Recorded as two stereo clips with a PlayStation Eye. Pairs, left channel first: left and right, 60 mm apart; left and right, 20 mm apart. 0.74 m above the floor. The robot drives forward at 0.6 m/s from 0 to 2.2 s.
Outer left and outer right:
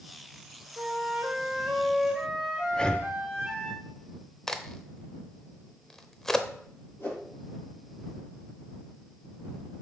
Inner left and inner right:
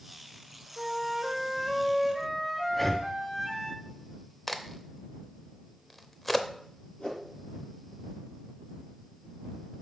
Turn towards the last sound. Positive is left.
turn(degrees=40)  # may be behind; listen again after turning